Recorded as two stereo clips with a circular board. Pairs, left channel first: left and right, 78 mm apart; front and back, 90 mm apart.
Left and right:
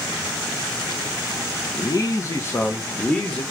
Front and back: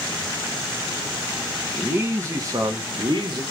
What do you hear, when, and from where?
1.8 s a man speaking: 110° left, 1.2 m; by 3.4 s 165° left, 1.5 m